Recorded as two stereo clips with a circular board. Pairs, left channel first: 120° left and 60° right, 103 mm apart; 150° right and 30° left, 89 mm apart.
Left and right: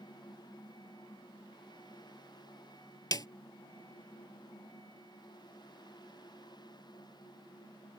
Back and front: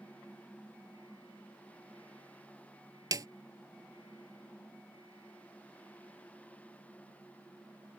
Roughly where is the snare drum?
Left.